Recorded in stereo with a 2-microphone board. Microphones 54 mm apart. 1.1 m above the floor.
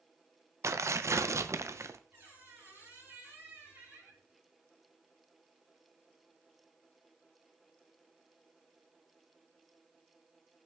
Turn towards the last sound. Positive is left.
turn(degrees=-40)  # may be behind; listen again after turning